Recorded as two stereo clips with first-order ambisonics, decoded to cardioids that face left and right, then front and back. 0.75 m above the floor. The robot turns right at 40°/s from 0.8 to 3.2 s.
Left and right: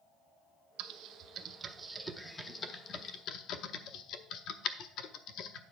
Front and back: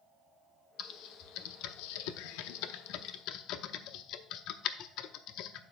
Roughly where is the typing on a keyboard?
Ahead right.